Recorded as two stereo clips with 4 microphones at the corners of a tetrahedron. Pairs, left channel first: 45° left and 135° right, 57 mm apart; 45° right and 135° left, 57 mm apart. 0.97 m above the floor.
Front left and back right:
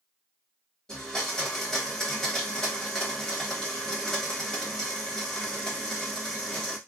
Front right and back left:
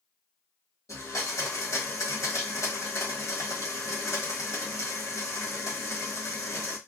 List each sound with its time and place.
0.9 s a blender: 35° right, 1.1 m